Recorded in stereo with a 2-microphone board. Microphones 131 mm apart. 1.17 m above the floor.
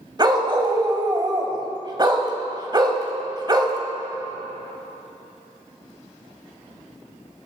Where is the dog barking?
35° right (ahead or behind), 1.3 m.